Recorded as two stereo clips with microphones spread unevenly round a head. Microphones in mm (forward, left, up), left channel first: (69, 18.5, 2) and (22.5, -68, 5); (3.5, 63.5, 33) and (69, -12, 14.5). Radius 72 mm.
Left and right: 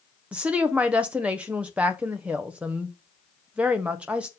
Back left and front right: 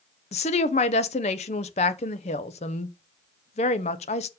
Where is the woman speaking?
160° left, 0.7 m.